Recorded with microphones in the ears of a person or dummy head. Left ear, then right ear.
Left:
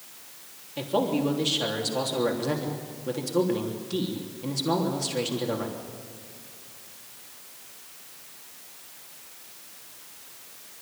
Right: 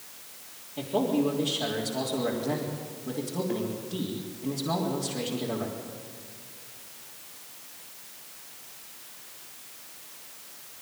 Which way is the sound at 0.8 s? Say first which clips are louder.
Left 1 dB; 70° left (ahead or behind).